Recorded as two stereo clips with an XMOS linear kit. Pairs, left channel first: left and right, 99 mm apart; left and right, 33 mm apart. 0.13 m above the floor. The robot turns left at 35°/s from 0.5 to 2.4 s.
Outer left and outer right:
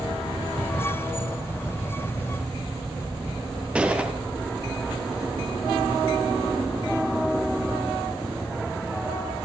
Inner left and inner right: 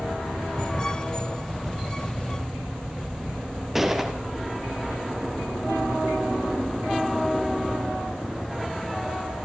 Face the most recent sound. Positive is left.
turn(degrees=-10)  # may be behind; listen again after turning